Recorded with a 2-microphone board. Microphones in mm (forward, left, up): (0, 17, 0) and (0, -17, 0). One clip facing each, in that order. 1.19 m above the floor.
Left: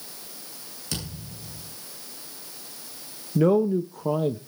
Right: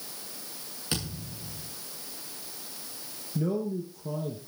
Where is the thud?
30° right (ahead or behind), 8 m.